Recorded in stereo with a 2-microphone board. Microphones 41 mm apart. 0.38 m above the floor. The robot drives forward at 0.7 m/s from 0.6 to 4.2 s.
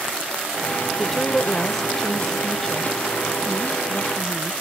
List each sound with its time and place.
1.0 s a woman speaking: 10° left (ahead or behind); by 4.5 s 5° left (ahead or behind)